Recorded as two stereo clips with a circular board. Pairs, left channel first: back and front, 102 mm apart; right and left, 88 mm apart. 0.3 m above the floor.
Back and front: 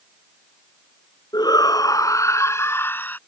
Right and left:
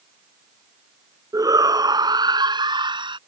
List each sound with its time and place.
1.3 s a shout: 135° left; by 3.2 s 110° left